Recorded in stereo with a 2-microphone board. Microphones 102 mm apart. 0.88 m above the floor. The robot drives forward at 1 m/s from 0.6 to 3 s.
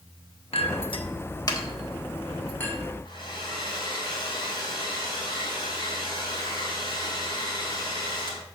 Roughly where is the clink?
Left.